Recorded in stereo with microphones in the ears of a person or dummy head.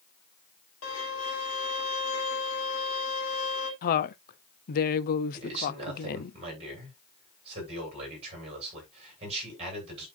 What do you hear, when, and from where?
0.8 s a violin: 75° left (ahead or behind), 3.5 m
3.8 s a woman speaking: 50° left (ahead or behind), 0.8 m
5.3 s a man speaking: 35° right (ahead or behind), 8 m